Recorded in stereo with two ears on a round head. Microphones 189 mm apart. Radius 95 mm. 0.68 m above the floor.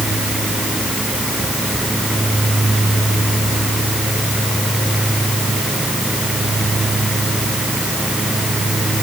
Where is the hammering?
No hammering in this recording.